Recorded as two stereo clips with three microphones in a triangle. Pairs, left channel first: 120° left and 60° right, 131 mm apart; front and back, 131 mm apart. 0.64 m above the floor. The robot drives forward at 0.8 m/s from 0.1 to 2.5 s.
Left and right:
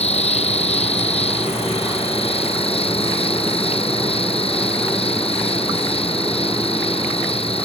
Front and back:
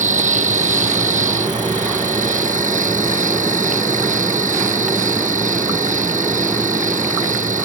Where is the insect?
160° left; by 7.7 s 165° left.